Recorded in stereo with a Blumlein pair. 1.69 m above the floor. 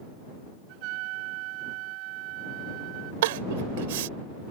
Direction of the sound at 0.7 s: 40° right.